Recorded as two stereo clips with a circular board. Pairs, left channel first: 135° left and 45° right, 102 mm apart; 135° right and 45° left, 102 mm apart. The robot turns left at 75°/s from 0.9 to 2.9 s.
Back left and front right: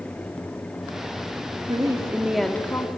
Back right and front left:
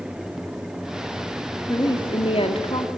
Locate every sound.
1.7 s a woman speaking: 80° right, 2 m; by 2.9 s 170° right, 2 m